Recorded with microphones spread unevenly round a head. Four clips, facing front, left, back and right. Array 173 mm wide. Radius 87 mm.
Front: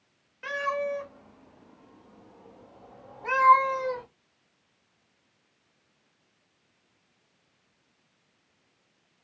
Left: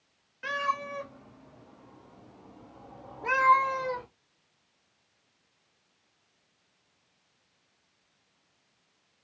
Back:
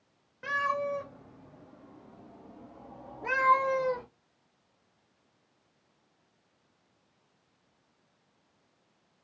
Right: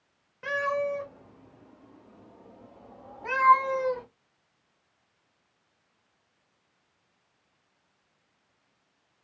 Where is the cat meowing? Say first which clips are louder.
Right 3 dB, front 1 dB; 130° right, 1.5 m; by 4.0 s 160° left, 2.5 m.